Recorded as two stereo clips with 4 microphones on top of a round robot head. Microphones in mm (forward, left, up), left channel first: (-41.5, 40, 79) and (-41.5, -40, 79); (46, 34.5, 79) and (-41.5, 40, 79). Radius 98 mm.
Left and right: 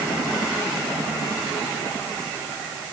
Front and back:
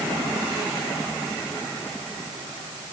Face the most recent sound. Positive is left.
No sound to turn to.